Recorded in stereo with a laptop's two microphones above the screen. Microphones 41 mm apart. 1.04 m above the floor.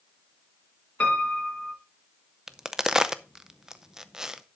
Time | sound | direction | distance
1.0 | a piano | 30° left (ahead or behind) | 5 m
2.5 | a crack | 15° right (ahead or behind) | 0.6 m